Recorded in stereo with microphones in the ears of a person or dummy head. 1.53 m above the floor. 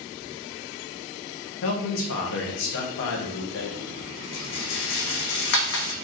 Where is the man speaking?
70° left (ahead or behind), 0.9 m.